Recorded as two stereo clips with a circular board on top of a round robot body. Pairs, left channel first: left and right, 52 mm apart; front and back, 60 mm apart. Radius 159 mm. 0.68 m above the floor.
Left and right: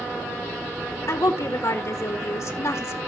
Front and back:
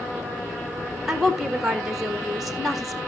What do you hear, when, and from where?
1.1 s a woman speaking: 95° left, 2 m